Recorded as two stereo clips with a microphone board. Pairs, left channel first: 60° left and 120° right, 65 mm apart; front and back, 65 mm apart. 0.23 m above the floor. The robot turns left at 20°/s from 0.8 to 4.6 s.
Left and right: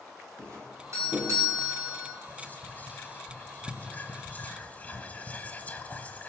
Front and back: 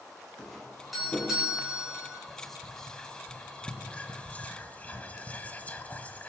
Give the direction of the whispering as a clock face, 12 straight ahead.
9 o'clock.